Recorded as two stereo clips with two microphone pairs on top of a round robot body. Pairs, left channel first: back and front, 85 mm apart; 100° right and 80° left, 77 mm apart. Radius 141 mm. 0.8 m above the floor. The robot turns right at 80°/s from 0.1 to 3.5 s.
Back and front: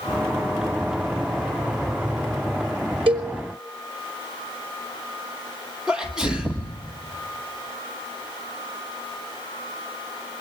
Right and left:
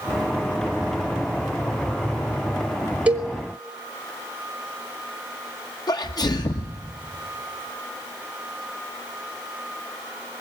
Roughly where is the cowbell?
Ahead.